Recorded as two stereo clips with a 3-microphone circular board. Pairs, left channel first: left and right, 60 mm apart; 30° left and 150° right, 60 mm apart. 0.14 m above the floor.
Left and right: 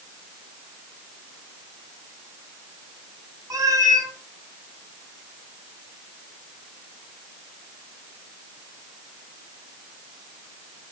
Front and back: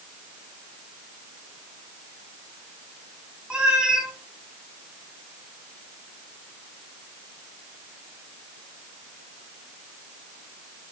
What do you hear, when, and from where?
3.5 s a cat meowing: 80° right, 2.0 m